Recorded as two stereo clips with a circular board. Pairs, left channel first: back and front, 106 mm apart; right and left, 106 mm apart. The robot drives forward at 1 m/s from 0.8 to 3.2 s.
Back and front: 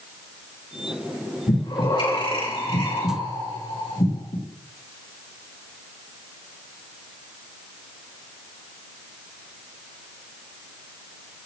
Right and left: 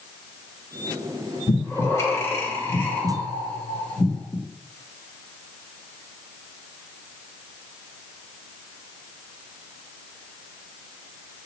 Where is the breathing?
145° right, 3 m; by 4.3 s 155° right, 4.5 m.